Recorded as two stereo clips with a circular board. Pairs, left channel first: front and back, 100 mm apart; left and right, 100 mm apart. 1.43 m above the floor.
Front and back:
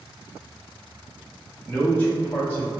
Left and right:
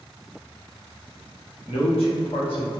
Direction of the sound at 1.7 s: 70° left.